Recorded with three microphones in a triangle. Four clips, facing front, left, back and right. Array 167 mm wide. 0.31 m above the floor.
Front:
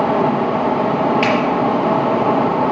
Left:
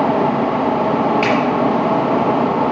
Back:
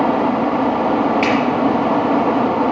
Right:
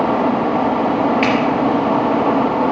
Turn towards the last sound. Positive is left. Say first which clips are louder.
# even, even
turn(degrees=-50)